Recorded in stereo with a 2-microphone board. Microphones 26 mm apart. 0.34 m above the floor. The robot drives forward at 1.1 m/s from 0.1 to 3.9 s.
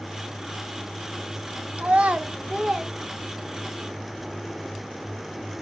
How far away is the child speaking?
About 1.1 m.